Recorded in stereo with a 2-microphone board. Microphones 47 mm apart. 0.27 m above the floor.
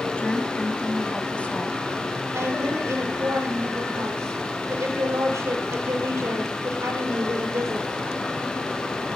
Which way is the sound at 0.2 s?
25° left (ahead or behind).